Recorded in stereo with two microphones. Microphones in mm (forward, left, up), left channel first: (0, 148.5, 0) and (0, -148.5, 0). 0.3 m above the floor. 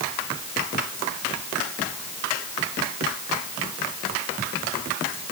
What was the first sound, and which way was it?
Only background noise.